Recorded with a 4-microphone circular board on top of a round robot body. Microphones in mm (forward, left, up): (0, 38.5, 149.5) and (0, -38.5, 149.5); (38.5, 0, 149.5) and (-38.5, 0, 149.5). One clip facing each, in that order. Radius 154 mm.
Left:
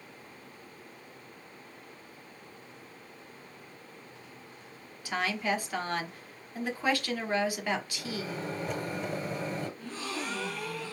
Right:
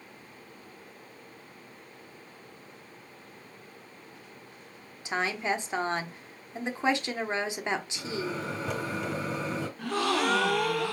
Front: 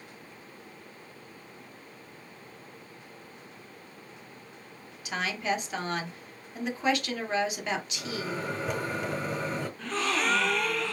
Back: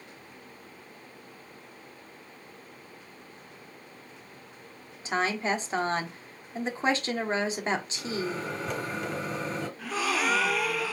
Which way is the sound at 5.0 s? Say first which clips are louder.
Right 1 dB, back 3 dB; 145° right.